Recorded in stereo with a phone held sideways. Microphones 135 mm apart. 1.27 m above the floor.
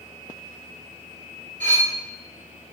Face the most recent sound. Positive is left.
turn(degrees=-65)  # may be behind; listen again after turning